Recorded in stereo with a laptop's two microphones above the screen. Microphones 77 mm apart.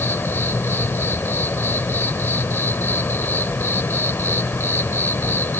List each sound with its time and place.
0.0 s an insect: 30° left (ahead or behind)